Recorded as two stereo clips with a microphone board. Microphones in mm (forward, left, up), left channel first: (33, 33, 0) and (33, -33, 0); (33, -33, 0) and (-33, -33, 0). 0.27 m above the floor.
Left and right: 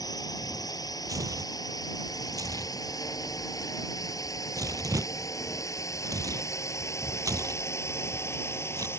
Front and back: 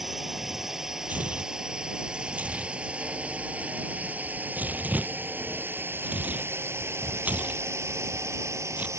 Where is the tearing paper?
115° right.